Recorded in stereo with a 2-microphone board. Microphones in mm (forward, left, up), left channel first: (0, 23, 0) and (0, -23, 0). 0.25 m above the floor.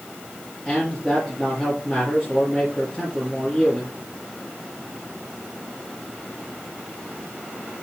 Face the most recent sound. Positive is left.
turn(degrees=10)  # may be behind; listen again after turning